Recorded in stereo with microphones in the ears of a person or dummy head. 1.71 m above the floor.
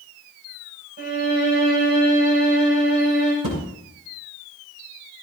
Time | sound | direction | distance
1.0 | a violin | 35° right (ahead or behind) | 7 m
3.4 | a thud | 35° right (ahead or behind) | 7 m